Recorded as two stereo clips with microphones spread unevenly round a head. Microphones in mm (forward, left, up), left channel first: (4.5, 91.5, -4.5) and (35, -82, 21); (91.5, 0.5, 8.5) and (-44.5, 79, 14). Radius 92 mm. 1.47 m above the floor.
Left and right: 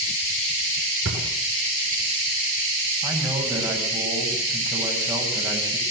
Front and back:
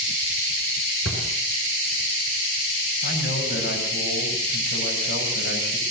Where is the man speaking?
5° right, 9 m.